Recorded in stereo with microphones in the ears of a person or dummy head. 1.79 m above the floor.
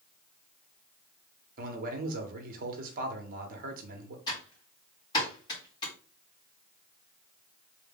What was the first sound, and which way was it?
A man speaking, 60° right (ahead or behind).